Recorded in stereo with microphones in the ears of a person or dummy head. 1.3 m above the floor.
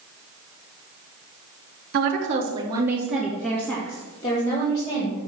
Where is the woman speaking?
50° right (ahead or behind), 1.4 m; by 5.2 s 35° left (ahead or behind), 3.5 m.